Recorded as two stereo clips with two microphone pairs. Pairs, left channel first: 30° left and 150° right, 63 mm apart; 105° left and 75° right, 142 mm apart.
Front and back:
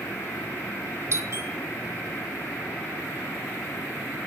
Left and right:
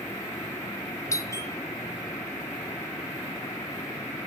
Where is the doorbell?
170° left, 1.0 m.